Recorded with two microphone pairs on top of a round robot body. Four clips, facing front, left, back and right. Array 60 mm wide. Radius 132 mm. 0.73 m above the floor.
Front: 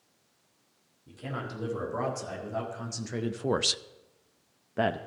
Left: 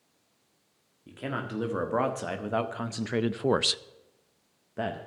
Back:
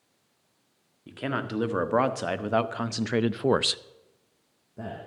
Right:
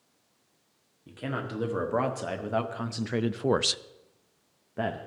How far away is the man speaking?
About 1.7 m.